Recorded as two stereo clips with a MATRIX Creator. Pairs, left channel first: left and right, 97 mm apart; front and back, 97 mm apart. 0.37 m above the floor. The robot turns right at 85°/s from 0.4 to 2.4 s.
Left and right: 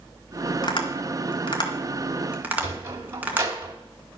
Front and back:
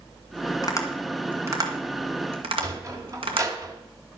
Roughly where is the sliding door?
Behind right.